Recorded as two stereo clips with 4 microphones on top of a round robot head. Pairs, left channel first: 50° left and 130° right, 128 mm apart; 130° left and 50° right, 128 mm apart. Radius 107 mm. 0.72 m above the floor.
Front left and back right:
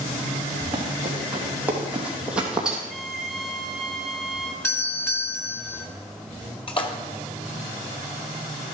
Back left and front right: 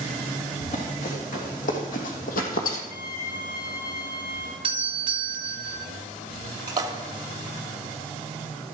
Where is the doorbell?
15° right, 1.6 m.